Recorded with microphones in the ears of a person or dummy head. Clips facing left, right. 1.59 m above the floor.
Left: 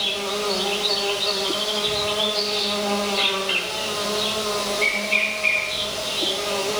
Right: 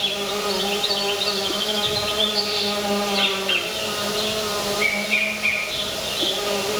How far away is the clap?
I don't hear a clap.